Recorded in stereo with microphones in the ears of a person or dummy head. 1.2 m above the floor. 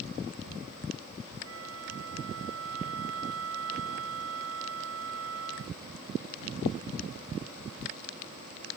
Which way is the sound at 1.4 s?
85° right.